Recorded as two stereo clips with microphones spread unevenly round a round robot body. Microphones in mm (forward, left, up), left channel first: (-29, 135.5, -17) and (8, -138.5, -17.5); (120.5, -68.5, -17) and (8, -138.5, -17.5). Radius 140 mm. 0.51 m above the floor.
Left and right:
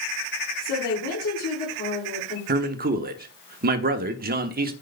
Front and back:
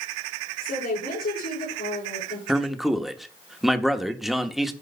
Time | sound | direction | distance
0.6 | a woman speaking | 50° left | 8.5 m
2.5 | a man speaking | 60° right | 1.1 m